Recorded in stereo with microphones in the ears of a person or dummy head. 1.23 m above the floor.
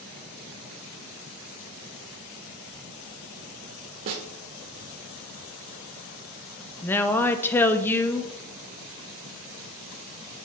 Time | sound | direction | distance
4.1 | a snare drum | 45° right (ahead or behind) | 1.2 m
6.8 | a woman speaking | 10° left (ahead or behind) | 0.7 m